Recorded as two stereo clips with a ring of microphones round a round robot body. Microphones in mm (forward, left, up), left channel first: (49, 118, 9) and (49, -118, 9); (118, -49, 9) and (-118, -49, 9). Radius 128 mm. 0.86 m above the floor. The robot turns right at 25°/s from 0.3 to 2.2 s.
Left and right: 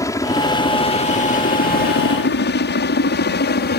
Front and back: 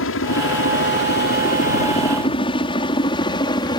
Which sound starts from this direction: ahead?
A helicopter, at 0.0 s.